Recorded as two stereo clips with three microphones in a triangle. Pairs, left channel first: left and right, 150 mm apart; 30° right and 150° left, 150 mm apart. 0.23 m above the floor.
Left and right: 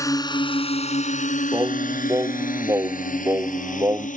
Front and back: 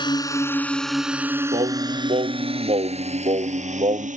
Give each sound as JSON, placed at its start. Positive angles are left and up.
{"t": 0.0, "sound": "a drone", "azimuth_deg": 25}
{"t": 1.5, "sound": "singing", "azimuth_deg": -160}